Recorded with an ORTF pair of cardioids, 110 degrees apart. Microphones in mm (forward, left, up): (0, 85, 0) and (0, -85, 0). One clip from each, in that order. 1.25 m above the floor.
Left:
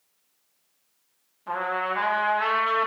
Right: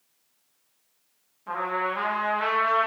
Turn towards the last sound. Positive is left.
turn(degrees=15)